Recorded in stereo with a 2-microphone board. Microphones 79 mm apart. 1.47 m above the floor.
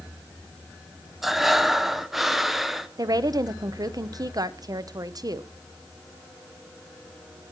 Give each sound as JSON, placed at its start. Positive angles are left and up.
{"t": 1.2, "sound": "breathing", "side_deg": -5, "distance_m": 0.6}
{"t": 3.0, "sound": "a woman speaking", "side_deg": -50, "distance_m": 0.6}